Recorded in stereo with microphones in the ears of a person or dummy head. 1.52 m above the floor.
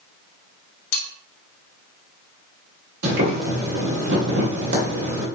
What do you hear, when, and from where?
0.9 s cutlery clinking: 50° left (ahead or behind), 1.6 m
3.0 s boiling: 70° right (ahead or behind), 2 m